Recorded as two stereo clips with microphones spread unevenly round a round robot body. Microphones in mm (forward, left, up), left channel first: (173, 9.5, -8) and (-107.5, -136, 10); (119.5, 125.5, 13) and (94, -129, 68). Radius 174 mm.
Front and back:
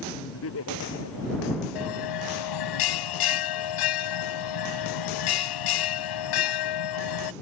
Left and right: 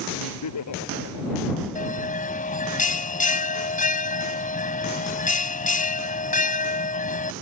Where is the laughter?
85° left; by 1.6 s 80° left.